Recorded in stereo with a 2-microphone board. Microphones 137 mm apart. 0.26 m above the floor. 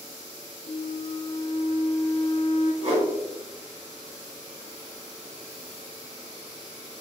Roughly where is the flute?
Right.